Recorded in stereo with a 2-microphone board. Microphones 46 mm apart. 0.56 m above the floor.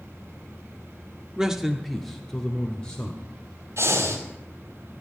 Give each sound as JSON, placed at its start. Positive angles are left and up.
{"t": 1.4, "sound": "a man speaking", "side_deg": -15, "distance_m": 0.9}
{"t": 3.8, "sound": "breathing", "side_deg": -70, "distance_m": 4.0}